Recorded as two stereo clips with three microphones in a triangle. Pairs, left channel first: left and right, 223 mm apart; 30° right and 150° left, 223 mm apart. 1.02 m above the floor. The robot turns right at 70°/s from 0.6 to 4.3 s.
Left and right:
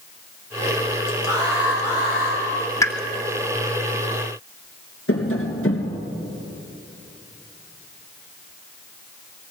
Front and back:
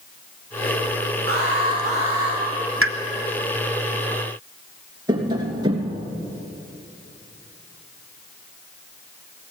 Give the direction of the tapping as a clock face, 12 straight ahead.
9 o'clock.